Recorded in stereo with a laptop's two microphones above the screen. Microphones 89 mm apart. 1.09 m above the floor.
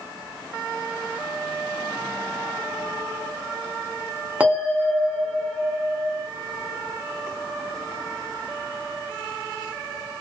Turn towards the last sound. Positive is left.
turn(degrees=-20)  # may be behind; listen again after turning